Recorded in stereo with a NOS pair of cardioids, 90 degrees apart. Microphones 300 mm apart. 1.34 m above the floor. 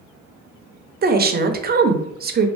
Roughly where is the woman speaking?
Ahead right.